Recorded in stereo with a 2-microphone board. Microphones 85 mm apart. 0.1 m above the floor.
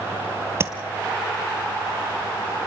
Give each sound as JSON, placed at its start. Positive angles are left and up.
{"t": 0.6, "sound": "tapping", "side_deg": -30, "distance_m": 1.2}